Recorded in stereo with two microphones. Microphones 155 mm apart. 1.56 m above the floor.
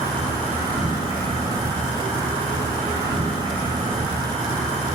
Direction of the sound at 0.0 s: 35° right (ahead or behind).